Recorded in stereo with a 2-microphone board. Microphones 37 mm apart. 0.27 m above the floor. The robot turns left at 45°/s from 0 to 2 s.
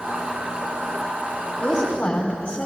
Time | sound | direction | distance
1.6 | a woman speaking | 20° left (ahead or behind) | 1.7 m